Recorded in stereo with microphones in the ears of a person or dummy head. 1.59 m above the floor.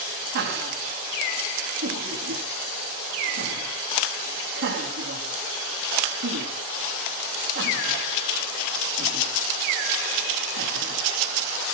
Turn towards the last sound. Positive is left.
turn(degrees=-55)  # may be behind; listen again after turning